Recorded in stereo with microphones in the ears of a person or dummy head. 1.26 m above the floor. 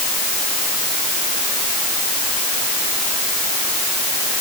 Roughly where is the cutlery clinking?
No cutlery clinking in this recording.